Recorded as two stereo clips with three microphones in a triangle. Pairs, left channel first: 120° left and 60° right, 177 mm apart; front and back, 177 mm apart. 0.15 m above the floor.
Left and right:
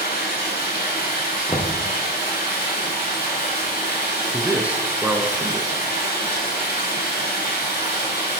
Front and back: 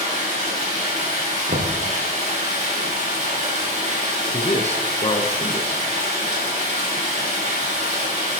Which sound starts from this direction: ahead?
A man speaking, at 4.3 s.